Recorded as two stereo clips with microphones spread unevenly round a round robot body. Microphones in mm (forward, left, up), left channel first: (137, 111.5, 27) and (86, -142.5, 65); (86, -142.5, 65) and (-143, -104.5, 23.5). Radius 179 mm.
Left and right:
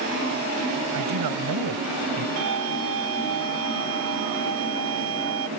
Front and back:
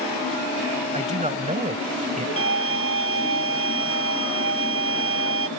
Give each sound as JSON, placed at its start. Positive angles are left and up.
{"t": 0.9, "sound": "a man speaking", "azimuth_deg": -125}
{"t": 2.4, "sound": "a violin", "azimuth_deg": -155}